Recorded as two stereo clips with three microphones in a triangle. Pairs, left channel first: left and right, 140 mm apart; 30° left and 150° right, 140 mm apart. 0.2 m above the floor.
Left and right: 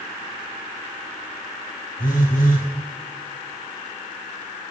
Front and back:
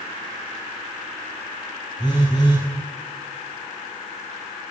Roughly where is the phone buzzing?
Left.